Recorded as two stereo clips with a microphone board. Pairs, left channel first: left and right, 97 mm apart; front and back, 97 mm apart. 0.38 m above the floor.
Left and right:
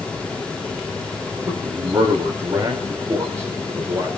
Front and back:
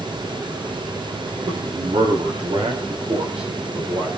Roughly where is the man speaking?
Behind right.